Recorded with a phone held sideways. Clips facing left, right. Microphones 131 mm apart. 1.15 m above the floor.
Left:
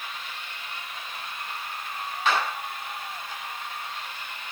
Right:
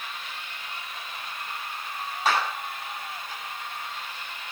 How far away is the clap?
About 8.5 m.